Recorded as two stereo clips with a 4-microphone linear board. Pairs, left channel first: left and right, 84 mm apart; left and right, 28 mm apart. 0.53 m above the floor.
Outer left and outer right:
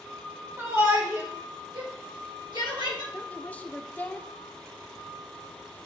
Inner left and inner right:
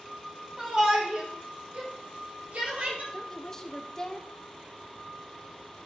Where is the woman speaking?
20° left (ahead or behind), 0.8 m.